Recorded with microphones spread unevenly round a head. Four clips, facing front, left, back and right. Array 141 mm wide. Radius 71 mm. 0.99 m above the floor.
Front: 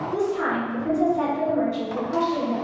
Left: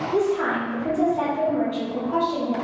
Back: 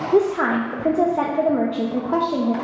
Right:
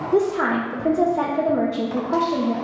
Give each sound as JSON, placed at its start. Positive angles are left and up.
{"t": 0.1, "sound": "a woman speaking", "azimuth_deg": -155, "distance_m": 0.6}